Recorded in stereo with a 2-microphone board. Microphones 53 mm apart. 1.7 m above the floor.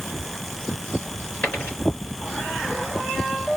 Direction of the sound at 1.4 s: 45° left (ahead or behind).